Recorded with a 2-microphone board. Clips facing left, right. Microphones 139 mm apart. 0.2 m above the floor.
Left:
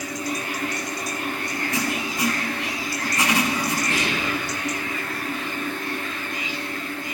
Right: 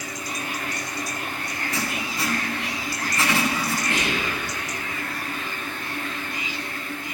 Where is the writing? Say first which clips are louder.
Left 2 dB; 15° left (ahead or behind), 0.6 m.